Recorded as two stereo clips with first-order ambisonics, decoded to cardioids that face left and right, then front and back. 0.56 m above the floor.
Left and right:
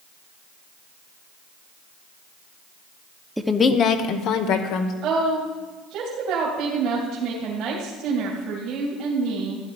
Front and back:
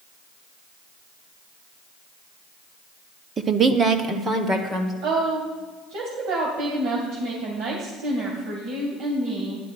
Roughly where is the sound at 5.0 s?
Behind right.